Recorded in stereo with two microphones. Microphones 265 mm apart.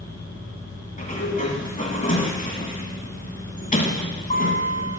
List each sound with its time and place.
1.0 s a sliding door: 30° left (ahead or behind), 1.0 m